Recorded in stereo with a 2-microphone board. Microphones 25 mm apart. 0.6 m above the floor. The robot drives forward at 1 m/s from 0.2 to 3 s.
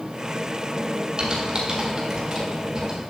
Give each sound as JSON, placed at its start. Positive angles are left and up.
{"t": 1.2, "sound": "typing on a keyboard", "side_deg": -35, "distance_m": 2.5}